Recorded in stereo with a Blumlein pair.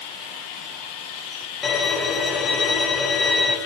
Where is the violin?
20° left, 1.4 m.